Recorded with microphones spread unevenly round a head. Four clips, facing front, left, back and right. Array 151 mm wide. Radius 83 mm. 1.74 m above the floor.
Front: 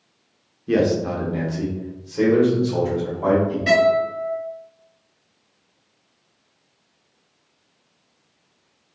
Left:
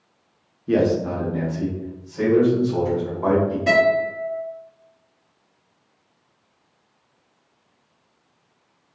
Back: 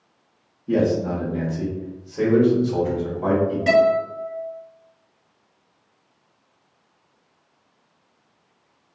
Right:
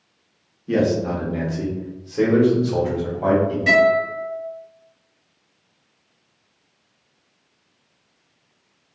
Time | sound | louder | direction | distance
0.7 | a man speaking | even, front 1 dB | 15° left | 0.7 m
3.7 | a guitar | right 2 dB, even | 160° left | 1.5 m